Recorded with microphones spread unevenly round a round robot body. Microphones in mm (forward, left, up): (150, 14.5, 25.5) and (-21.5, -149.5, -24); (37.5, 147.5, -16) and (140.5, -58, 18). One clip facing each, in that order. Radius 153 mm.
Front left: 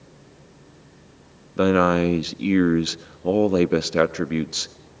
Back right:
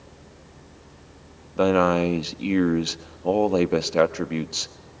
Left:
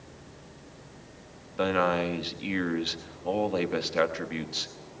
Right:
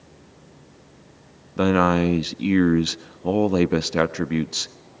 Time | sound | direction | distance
1.6 | a man speaking | 30° right | 1.0 m